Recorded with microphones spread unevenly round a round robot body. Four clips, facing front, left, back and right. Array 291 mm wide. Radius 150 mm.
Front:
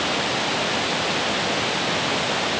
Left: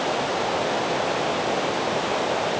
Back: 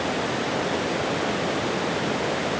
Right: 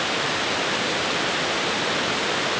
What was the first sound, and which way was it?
Only background noise.